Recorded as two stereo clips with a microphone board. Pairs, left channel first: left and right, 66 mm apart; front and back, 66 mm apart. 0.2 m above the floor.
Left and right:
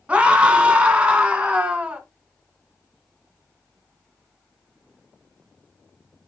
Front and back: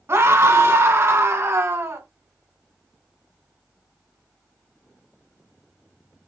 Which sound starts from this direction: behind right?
A scream, at 0.1 s.